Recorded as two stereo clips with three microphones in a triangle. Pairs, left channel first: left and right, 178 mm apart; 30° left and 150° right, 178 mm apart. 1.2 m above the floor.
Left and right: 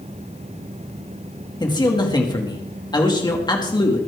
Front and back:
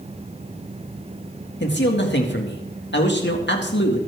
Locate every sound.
1.6 s a man speaking: 25° left, 2 m